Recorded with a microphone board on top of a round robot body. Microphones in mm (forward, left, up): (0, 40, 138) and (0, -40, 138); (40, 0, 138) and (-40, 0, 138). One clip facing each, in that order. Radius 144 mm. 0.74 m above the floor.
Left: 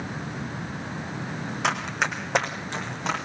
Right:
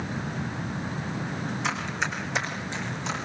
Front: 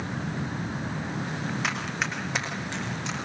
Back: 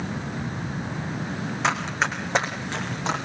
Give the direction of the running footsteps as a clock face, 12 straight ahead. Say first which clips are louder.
Left 5 dB, back 10 dB; 8 o'clock.